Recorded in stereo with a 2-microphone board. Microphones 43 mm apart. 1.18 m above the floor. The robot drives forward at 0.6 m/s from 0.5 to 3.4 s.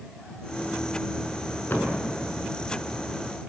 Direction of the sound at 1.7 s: 55° left (ahead or behind).